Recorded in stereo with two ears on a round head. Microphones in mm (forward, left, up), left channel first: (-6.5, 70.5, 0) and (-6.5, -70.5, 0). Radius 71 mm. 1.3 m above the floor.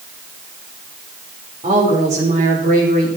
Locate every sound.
1.6 s a woman speaking: 40° right (ahead or behind), 4.5 m; by 3.1 s 60° right (ahead or behind), 3.5 m